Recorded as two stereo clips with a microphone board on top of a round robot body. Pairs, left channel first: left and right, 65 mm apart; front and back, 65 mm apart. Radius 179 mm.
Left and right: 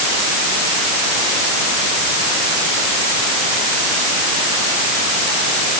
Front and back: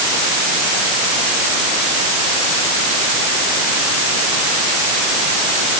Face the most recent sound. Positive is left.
No sound to turn to.